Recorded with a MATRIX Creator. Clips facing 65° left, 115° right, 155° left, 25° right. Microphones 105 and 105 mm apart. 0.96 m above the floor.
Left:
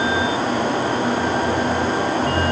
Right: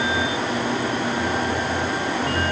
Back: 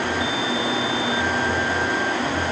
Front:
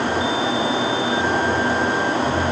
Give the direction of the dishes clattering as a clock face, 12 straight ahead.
I don't hear dishes clattering.